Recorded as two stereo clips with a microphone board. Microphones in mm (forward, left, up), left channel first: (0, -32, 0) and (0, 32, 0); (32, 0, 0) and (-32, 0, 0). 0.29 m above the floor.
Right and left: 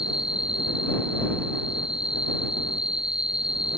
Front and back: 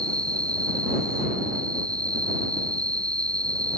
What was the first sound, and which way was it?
An insect, 165° left.